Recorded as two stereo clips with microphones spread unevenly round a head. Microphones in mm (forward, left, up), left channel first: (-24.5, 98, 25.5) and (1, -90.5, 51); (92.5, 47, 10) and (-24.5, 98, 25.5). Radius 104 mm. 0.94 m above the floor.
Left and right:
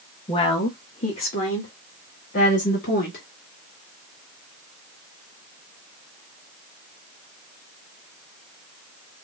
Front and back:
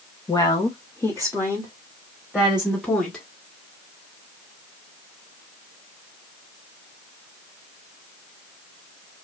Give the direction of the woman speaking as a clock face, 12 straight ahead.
11 o'clock.